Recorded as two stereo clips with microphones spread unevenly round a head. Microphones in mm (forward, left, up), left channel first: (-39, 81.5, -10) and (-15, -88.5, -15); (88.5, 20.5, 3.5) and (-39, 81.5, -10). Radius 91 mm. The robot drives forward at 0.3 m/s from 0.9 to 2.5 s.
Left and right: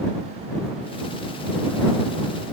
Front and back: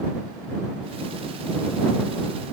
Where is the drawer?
No drawer in this recording.